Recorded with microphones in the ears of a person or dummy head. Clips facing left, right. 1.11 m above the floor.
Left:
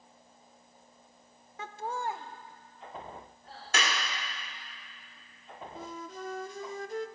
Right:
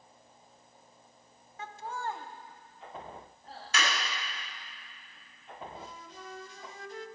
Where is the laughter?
60° left (ahead or behind), 0.7 m; by 3.6 s 35° right (ahead or behind), 2.5 m.